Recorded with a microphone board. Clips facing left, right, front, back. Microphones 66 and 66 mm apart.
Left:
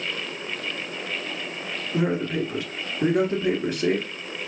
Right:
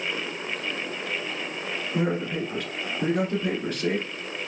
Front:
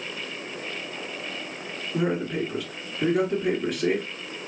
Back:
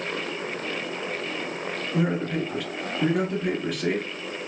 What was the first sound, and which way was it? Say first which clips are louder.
A man speaking: left 3 dB, even; 80° left.